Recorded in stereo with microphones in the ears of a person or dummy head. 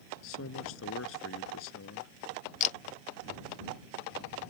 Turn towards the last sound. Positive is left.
turn(degrees=40)  # may be behind; listen again after turning